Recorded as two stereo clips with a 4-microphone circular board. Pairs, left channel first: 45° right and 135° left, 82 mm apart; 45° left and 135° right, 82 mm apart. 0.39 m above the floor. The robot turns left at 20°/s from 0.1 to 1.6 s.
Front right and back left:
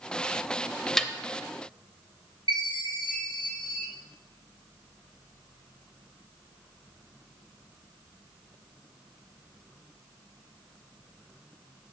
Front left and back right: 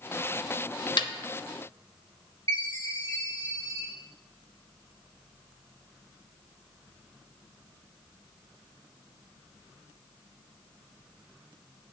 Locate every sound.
1.0 s a snare drum: 35° left, 0.6 m
2.5 s a chime: 95° left, 3.5 m